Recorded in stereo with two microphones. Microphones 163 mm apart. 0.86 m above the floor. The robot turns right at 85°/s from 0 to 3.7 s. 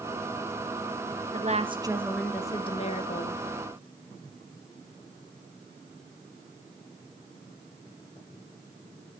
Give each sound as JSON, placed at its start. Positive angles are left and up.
{"t": 1.3, "sound": "a woman speaking", "azimuth_deg": -70, "distance_m": 1.2}